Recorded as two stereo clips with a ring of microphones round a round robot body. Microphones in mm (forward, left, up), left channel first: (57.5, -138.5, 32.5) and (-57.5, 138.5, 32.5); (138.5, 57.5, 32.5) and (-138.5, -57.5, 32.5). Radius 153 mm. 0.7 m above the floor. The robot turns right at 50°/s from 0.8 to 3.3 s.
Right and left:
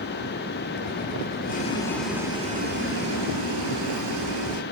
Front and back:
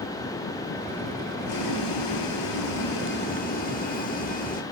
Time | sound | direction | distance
1.5 | boiling | 5° right | 1.6 m